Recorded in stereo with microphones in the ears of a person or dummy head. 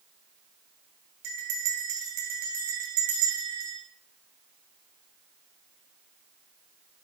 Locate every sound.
1.2 s a bell: 60° right (ahead or behind), 5.5 m